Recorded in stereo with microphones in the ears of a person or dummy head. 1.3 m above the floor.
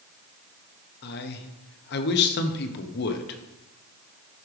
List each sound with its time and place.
1.0 s a man speaking: 55° left (ahead or behind), 0.9 m